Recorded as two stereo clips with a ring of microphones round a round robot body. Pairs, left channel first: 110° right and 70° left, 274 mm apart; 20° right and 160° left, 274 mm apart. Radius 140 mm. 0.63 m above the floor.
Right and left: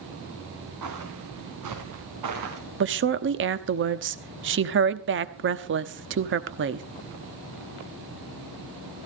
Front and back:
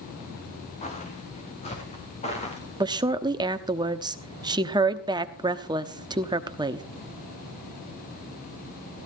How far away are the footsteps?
About 3.5 m.